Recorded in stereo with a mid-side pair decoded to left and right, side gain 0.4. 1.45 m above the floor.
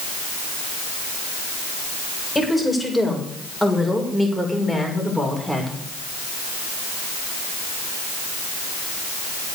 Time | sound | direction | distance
2.4 | a woman speaking | 15° left | 7 m